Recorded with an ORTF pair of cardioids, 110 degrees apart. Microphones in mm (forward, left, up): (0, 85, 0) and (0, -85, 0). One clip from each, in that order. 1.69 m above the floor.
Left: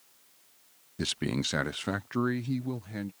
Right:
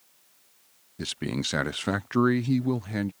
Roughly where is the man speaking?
Ahead.